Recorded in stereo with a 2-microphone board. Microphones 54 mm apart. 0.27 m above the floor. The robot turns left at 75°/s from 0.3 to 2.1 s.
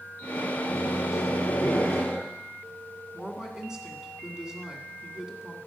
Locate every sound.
0.6 s a microwave: 105° left, 2.5 m; by 2.2 s 5° right, 2.5 m
3.1 s a woman speaking: 10° right (ahead or behind), 1.9 m